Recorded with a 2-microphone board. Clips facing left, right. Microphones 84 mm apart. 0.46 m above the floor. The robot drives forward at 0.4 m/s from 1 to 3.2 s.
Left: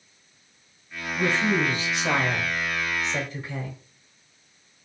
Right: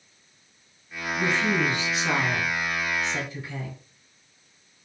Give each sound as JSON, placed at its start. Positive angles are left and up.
{"t": 1.1, "sound": "a woman speaking", "side_deg": 50, "distance_m": 1.7}